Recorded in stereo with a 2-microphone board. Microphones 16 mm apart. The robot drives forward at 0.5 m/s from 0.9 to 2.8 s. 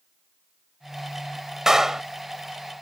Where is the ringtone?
I don't hear a ringtone.